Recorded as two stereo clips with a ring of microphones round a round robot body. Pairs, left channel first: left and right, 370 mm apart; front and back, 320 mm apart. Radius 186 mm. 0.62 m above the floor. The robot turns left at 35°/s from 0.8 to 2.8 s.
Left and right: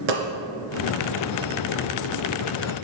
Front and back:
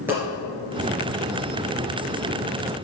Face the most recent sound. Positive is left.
turn(degrees=-165)